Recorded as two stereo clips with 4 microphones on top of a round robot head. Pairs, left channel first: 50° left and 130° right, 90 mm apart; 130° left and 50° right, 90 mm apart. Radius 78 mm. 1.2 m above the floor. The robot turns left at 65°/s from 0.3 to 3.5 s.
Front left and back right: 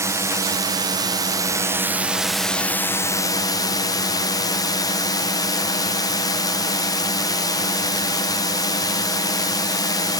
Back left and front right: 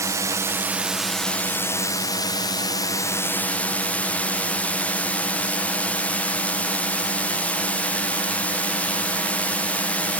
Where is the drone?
90° right; by 10.2 s 65° left.